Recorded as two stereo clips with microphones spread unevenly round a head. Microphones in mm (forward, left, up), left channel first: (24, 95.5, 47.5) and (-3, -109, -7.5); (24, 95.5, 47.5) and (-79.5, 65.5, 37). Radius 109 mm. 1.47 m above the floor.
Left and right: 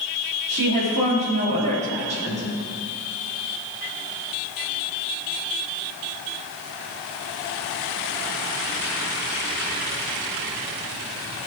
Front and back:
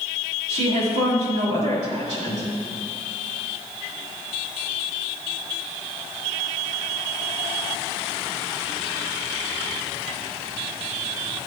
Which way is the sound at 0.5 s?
155° right.